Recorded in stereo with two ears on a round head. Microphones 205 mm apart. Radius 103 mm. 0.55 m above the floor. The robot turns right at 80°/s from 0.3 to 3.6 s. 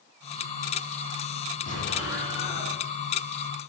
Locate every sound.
1.7 s an explosion: 95° left, 6.5 m; by 2.8 s 175° right, 6.5 m